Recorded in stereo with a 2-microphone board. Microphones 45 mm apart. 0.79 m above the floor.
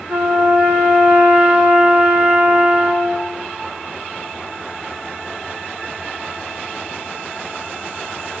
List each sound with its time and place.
0.1 s a trumpet: 65° right (ahead or behind), 5 m